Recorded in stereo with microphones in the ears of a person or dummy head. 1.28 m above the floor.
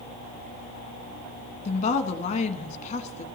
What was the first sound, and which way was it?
A woman speaking, 35° left (ahead or behind).